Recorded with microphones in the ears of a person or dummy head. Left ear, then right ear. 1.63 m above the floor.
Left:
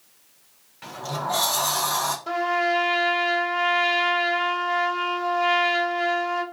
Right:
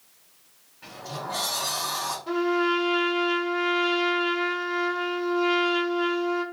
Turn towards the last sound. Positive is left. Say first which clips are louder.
# even
turn(degrees=85)